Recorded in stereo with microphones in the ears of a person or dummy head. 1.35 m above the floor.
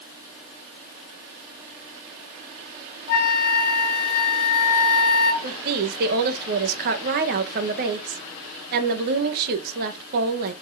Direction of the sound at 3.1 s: 50° left (ahead or behind).